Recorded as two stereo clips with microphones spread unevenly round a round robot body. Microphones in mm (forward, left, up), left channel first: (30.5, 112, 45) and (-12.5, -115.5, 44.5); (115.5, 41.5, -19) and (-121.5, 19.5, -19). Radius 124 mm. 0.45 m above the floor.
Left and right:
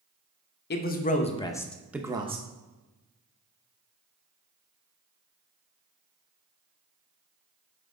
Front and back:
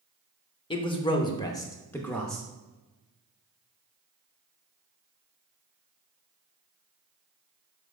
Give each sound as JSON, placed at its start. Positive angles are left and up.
{"t": 0.7, "sound": "a man speaking", "azimuth_deg": 65, "distance_m": 1.0}